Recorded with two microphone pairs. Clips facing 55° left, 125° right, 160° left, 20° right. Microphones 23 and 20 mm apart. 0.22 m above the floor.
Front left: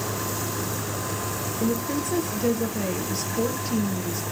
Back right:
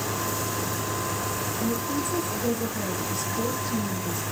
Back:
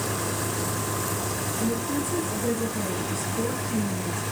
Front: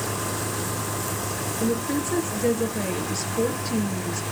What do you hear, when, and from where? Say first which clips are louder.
1.6 s a woman speaking: front left 3 dB, front 3 dB; 10° left, 3.5 m